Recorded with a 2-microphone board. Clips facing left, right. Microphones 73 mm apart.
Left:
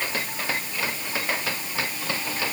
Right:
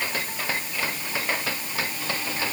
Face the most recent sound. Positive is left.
No sound to turn to.